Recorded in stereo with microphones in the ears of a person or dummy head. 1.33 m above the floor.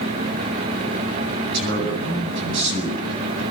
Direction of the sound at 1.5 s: 60° right (ahead or behind).